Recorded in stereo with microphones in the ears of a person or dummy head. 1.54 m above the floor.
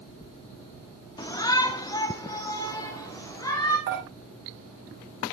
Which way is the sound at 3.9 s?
70° right (ahead or behind).